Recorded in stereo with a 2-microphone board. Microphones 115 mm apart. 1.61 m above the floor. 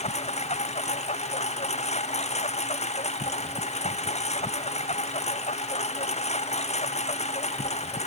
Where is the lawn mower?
70° left (ahead or behind).